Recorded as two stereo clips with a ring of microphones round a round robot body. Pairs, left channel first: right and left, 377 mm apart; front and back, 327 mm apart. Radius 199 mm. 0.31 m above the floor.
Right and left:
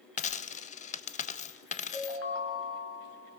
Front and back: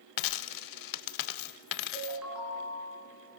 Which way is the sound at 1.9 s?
95° right.